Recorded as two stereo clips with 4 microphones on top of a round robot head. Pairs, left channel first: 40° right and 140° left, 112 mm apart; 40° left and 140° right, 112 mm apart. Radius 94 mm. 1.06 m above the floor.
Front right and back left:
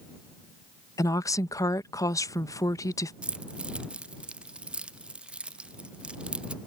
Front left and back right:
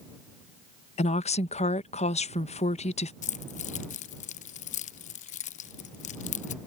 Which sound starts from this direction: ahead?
A woman speaking, at 1.0 s.